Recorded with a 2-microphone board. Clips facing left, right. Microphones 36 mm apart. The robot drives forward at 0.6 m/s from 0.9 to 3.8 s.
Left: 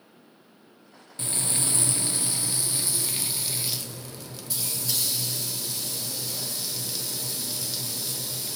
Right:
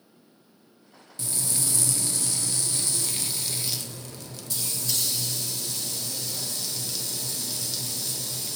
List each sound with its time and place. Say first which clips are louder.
1.2 s frying: left 2 dB; 35° left (ahead or behind), 0.6 m; by 8.6 s 10° left (ahead or behind), 1.6 m